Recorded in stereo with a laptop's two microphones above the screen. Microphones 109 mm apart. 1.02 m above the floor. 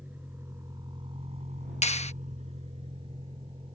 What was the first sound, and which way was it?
A vehicle, 15° right (ahead or behind).